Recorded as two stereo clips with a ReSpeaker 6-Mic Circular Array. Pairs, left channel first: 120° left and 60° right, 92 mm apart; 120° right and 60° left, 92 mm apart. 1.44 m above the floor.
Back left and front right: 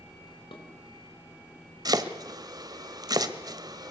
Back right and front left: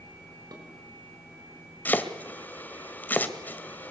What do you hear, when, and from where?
0.5 s dishes clattering: 105° left, 4.5 m
1.9 s chopping: 60° right, 1.5 m